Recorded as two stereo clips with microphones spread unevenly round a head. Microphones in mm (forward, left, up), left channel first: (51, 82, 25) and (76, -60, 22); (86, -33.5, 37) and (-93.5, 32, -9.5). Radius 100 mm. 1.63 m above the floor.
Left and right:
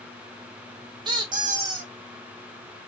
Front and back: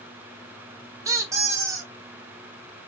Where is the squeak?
115° right, 0.5 m.